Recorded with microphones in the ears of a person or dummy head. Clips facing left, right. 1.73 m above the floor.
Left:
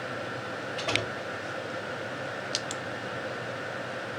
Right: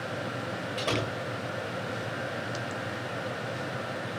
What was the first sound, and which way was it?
A door slam, 50° right (ahead or behind).